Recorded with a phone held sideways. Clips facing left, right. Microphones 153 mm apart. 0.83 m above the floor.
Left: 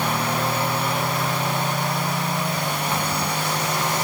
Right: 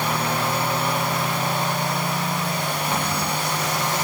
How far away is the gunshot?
No gunshot in this recording.